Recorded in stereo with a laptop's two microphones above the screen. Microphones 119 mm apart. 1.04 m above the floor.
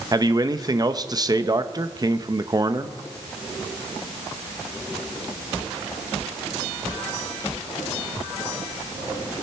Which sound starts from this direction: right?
A man speaking, at 0.1 s.